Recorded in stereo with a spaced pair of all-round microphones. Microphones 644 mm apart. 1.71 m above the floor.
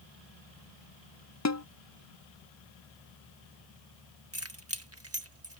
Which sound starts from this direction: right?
Keys jangling, at 4.3 s.